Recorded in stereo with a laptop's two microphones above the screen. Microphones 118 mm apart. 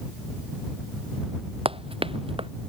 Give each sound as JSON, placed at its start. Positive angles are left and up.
{"t": 1.6, "sound": "running footsteps", "side_deg": -50}